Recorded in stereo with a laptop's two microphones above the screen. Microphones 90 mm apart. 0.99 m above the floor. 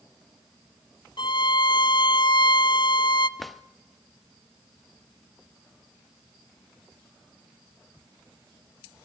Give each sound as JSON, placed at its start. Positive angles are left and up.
{"t": 1.2, "sound": "a violin", "side_deg": 60, "distance_m": 0.7}
{"t": 3.4, "sound": "a drawer", "side_deg": 0, "distance_m": 0.5}